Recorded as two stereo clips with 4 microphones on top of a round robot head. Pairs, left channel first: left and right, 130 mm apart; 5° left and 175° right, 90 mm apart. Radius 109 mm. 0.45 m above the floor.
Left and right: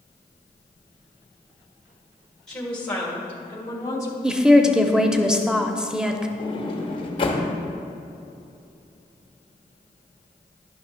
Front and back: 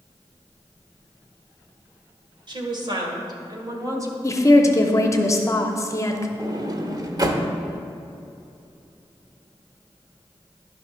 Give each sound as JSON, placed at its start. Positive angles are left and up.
{"t": 2.5, "sound": "a woman speaking", "azimuth_deg": 175, "distance_m": 2.0}
{"t": 4.2, "sound": "a woman speaking", "azimuth_deg": -10, "distance_m": 0.8}
{"t": 6.4, "sound": "a sliding door", "azimuth_deg": 140, "distance_m": 1.0}